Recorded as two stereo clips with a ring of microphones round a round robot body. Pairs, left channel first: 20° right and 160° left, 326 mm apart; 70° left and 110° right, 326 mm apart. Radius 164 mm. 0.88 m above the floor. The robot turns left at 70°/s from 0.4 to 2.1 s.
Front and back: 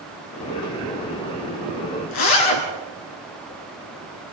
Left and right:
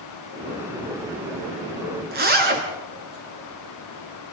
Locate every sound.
2.1 s a zipper: 50° right, 3.5 m